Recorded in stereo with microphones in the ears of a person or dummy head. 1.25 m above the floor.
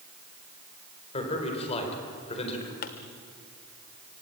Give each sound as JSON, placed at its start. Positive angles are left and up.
{"t": 1.1, "sound": "a man speaking", "side_deg": 30, "distance_m": 4.5}
{"t": 2.8, "sound": "a pop", "side_deg": 40, "distance_m": 1.2}